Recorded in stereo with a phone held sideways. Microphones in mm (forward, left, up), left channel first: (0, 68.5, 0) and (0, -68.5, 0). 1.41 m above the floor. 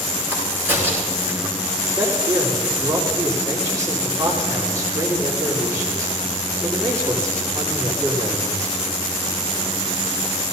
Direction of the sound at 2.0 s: 25° right (ahead or behind).